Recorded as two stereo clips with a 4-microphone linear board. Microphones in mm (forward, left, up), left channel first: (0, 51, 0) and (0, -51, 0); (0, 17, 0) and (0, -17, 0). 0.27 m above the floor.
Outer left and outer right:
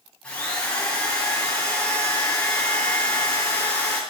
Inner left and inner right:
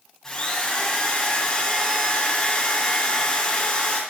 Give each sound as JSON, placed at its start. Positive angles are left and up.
{"t": 0.2, "sound": "a drill", "side_deg": 10, "distance_m": 7.0}